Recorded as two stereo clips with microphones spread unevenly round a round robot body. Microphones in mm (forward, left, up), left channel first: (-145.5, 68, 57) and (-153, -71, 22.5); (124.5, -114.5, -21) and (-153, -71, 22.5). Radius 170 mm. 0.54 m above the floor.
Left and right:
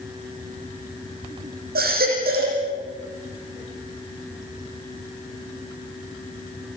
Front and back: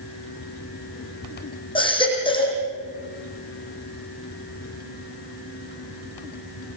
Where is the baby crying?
80° right, 8 m.